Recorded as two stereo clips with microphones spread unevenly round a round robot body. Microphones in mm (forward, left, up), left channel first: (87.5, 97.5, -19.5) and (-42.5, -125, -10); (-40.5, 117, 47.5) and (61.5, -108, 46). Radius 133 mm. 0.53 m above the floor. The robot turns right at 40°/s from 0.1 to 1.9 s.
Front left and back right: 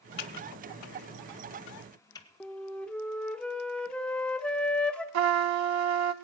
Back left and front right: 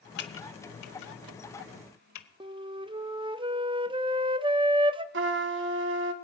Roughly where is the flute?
Ahead.